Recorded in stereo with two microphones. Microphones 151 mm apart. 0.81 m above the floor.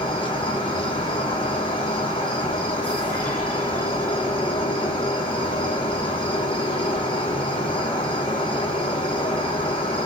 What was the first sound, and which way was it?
An insect, 35° left (ahead or behind).